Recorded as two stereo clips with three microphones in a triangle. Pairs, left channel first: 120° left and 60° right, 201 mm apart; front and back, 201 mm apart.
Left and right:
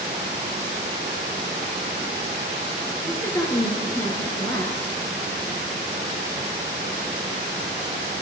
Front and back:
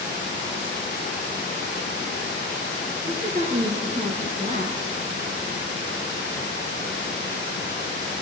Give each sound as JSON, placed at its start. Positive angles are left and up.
{"t": 3.1, "sound": "a woman speaking", "azimuth_deg": -170, "distance_m": 1.4}